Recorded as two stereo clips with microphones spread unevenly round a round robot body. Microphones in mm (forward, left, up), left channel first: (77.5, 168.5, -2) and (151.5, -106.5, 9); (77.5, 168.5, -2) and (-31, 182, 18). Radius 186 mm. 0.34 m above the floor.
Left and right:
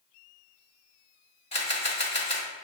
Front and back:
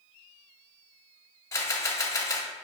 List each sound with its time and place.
1.5 s a camera shutter: 40° left, 1.4 m